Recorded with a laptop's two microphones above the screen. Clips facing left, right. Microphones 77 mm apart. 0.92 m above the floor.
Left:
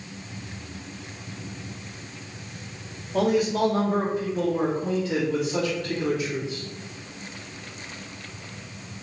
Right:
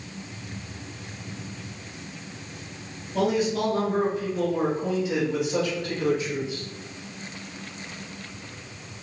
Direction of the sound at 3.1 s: 50° left (ahead or behind).